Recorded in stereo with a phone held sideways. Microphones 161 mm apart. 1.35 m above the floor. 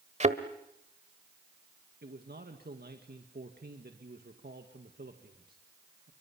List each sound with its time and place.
0.2 s a thud: 45° right (ahead or behind), 1.4 m
2.0 s a man speaking: 75° right (ahead or behind), 2 m